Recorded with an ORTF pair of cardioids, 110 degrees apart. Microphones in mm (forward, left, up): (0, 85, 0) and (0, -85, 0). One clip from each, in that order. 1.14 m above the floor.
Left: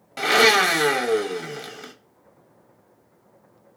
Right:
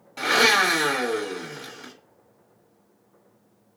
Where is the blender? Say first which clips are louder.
Left 2 dB; 30° left, 0.9 m.